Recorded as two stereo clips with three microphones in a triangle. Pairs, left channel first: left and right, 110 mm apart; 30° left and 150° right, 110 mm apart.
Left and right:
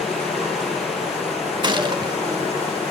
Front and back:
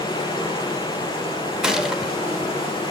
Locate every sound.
0.0 s running water: 75° left, 7.5 m
1.6 s a gunshot: 65° right, 0.9 m